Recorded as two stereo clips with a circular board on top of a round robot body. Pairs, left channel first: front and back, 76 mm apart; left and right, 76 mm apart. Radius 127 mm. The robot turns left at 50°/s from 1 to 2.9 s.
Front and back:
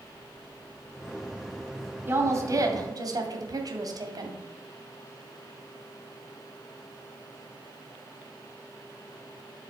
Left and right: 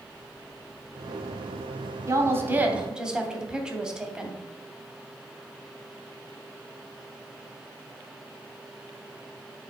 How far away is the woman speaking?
About 1.2 m.